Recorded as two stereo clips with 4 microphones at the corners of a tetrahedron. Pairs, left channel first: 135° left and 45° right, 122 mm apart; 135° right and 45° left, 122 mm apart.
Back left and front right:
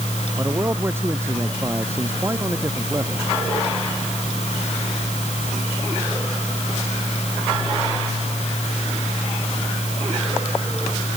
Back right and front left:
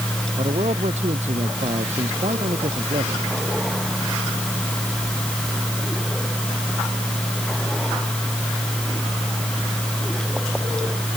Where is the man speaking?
25° left.